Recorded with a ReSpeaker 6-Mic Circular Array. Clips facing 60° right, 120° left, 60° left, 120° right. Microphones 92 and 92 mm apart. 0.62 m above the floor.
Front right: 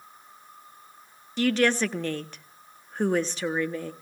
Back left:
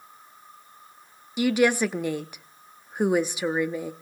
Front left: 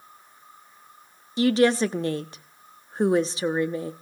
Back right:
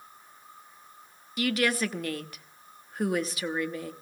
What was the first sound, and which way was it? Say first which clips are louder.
A woman speaking: back left 2 dB, front left 8 dB; 55° left.